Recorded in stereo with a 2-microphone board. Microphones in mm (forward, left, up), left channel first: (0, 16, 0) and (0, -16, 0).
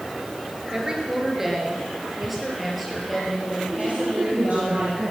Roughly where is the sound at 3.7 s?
Right.